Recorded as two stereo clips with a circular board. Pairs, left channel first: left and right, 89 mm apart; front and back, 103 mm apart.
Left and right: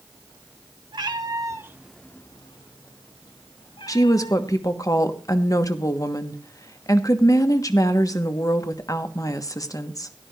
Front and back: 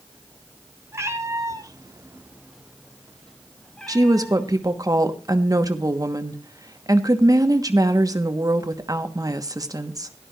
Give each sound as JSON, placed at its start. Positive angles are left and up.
{"t": 0.9, "sound": "a cat meowing", "azimuth_deg": -120, "distance_m": 1.6}
{"t": 3.9, "sound": "a woman speaking", "azimuth_deg": 130, "distance_m": 1.3}